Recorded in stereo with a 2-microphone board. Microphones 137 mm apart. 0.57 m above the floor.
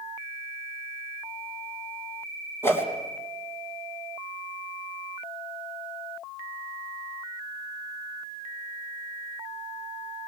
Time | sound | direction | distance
2.6 | a whoosh | 20° left (ahead or behind) | 3 m